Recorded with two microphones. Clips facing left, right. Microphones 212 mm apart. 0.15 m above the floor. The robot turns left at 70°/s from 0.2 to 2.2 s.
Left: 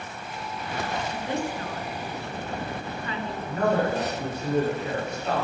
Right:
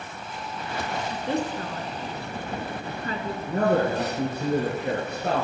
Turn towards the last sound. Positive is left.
turn(degrees=-60)  # may be behind; listen again after turning